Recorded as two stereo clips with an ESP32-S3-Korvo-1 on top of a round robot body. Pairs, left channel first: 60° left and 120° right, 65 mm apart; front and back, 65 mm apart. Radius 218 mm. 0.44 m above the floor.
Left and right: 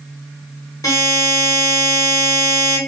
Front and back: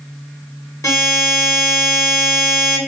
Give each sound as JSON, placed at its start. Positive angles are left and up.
{"t": 0.8, "sound": "a buzzer", "azimuth_deg": 35, "distance_m": 3.0}